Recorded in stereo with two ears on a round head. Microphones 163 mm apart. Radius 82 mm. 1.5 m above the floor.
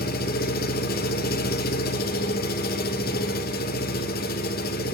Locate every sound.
0.0 s an engine running: 55° left (ahead or behind), 2.0 m